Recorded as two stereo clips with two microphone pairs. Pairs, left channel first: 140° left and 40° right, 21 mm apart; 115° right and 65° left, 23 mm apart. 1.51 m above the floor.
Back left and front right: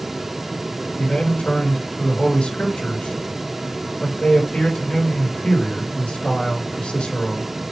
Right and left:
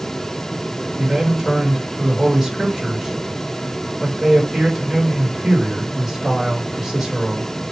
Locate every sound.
1.0 s a man speaking: 140° left, 3.5 m